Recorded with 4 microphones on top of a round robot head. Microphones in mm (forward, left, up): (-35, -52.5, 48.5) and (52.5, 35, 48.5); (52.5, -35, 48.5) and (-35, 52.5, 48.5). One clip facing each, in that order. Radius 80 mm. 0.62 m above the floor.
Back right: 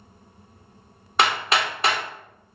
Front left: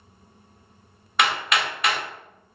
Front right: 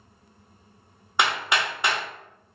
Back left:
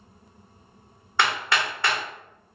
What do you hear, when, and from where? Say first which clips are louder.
1.2 s hammering: back right 2 dB, even; 105° right, 0.9 m